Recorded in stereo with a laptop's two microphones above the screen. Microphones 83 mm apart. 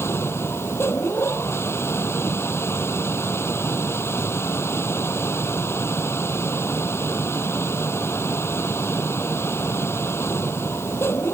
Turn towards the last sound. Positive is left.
turn(degrees=30)  # may be behind; listen again after turning